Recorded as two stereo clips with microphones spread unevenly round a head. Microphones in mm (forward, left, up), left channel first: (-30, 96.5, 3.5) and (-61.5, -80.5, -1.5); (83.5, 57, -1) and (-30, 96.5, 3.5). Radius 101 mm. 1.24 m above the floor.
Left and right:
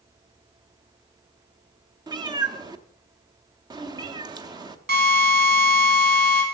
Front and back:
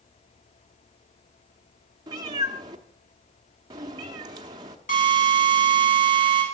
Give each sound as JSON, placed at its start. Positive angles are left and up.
{"t": 2.1, "sound": "a cat meowing", "azimuth_deg": -160, "distance_m": 0.8}
{"t": 4.9, "sound": "a drill", "azimuth_deg": -55, "distance_m": 3.5}